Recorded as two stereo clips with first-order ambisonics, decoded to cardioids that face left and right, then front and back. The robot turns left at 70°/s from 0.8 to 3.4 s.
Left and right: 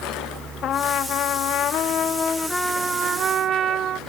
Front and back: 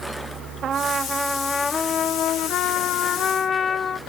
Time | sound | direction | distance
0.6 | a trumpet | 130° left | ?